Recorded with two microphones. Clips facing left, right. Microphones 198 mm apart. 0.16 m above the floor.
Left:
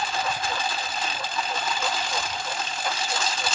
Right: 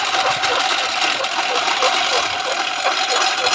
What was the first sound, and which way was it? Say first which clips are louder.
A lawn mower: right 7 dB; 90° right.